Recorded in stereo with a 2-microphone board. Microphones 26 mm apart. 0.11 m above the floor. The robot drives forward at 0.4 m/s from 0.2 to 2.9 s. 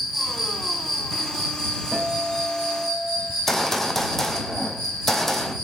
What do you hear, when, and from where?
0.0 s an insect: 5° right (ahead or behind), 1.2 m; by 5.7 s centre (ahead or behind), 2 m
1.9 s a guitar: 10° right (ahead or behind), 2.5 m
3.3 s a gunshot: 15° left (ahead or behind), 0.8 m